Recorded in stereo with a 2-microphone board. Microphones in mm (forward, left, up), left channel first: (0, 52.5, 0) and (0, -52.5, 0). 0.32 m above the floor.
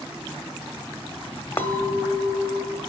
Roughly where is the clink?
Left.